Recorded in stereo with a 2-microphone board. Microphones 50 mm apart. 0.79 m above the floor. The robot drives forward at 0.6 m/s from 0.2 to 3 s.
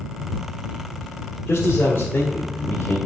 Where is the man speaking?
55° left (ahead or behind), 2 m; by 3.0 s 40° left (ahead or behind), 2.5 m.